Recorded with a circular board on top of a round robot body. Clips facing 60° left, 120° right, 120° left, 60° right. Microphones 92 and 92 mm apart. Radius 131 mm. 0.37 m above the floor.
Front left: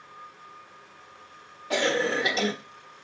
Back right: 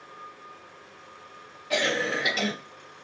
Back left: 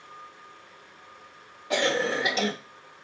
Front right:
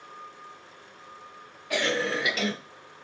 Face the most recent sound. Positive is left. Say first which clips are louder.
# front left 2 dB, back left 2 dB
turn(degrees=80)